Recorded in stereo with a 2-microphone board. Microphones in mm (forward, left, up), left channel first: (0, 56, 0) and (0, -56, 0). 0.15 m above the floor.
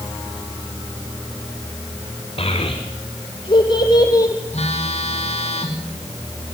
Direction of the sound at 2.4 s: 55° left (ahead or behind).